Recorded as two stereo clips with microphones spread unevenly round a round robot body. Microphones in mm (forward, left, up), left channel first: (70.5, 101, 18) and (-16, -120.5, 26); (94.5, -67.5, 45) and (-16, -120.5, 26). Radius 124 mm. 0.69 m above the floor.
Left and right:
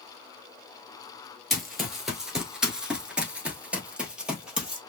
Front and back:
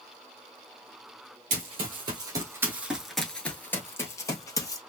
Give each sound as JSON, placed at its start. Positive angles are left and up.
{"t": 1.5, "sound": "running footsteps", "azimuth_deg": 160, "distance_m": 0.9}